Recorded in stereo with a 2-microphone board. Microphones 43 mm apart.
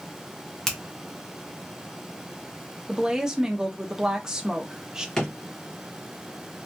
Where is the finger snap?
10° left (ahead or behind), 0.8 m.